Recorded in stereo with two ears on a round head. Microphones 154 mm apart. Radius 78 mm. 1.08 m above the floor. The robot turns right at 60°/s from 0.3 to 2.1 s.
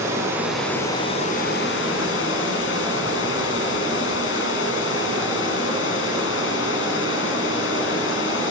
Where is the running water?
15° right, 8 m; by 8.5 s 90° left, 8 m.